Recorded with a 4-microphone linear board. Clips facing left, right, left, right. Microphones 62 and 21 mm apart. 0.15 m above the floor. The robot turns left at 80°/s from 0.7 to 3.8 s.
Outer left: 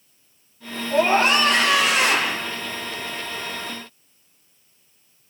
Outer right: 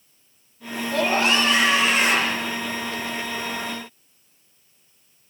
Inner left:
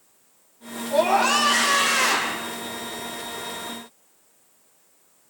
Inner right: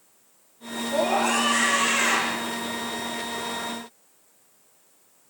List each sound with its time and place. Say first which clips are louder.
0.9 s a scream: outer left 3 dB, inner left 4 dB; 165° left, 7 m; by 2.4 s 45° left, 7 m